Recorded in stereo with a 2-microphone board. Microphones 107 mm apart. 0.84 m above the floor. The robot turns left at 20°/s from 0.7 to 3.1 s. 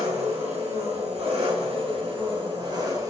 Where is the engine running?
95° right, 2.5 m; by 3.1 s 145° right, 2.5 m.